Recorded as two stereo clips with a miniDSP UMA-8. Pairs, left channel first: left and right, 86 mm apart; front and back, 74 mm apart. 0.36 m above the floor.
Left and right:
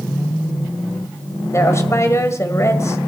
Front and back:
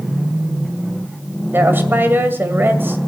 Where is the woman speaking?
130° left, 2 m.